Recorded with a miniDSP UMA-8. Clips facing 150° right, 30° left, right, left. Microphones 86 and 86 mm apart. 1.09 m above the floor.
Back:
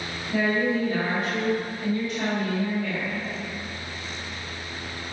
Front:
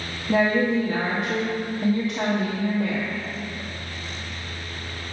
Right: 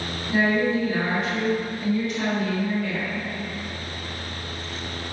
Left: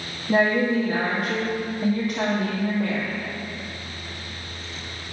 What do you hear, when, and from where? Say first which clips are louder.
0.3 s a woman speaking: front 4 dB, left 2 dB; 50° left, 1.5 m